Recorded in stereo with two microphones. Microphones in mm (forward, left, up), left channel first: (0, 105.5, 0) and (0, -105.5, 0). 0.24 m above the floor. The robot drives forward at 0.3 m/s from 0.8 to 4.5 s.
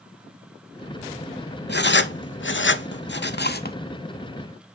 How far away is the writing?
About 0.6 m.